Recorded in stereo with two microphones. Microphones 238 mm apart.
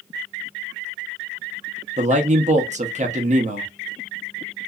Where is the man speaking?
30° right (ahead or behind), 0.7 m.